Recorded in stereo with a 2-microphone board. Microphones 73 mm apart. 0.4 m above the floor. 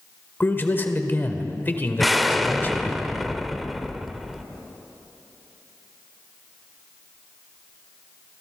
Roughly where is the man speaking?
Left.